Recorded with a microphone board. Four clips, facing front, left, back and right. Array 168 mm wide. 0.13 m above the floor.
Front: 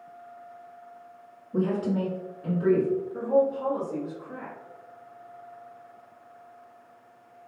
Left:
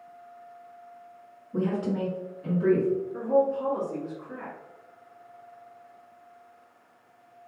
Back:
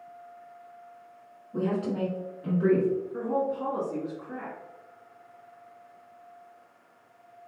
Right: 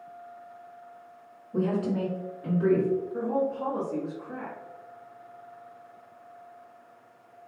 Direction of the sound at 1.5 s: 45° left.